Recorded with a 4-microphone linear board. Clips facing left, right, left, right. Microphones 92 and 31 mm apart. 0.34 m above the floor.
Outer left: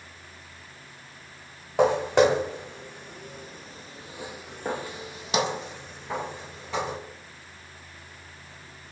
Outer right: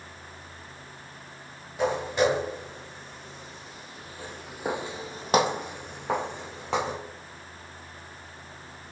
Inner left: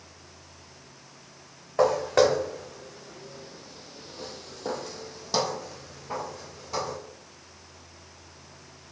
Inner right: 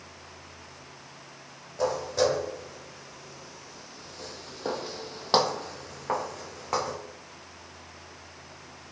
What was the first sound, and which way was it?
Footsteps, 70° left (ahead or behind).